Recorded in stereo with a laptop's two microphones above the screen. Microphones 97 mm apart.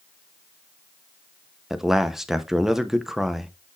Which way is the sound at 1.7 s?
5° right (ahead or behind).